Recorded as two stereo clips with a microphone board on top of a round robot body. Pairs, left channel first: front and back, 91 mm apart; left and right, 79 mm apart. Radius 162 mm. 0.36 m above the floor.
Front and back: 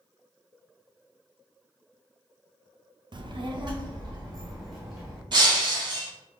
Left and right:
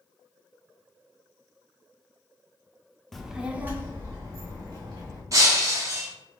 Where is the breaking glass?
140° right, 0.8 m.